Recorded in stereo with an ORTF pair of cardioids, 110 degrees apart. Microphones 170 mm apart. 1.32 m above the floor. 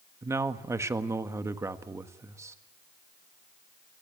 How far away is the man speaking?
About 1.5 m.